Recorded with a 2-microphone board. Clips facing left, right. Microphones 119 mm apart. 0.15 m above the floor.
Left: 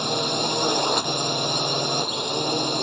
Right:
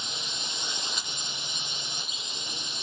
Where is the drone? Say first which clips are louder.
Left 17 dB; 65° left (ahead or behind).